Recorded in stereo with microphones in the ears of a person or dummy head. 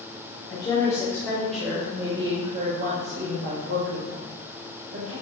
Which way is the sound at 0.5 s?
25° left (ahead or behind).